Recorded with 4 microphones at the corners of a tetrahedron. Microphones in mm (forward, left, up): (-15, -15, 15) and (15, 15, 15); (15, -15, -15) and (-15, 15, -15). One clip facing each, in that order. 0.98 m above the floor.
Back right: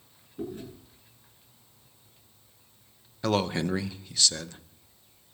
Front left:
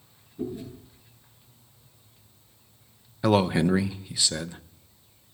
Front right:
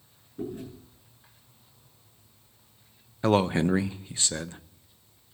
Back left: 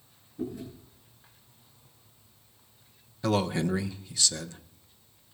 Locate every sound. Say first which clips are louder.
0.4 s chewing: front left 3 dB, even; 90° right, 9.5 m
3.2 s a man speaking: front left 5 dB, front right 4 dB; 20° right, 0.6 m